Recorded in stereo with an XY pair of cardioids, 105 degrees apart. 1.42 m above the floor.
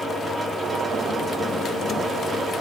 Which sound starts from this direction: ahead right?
A fan, at 0.0 s.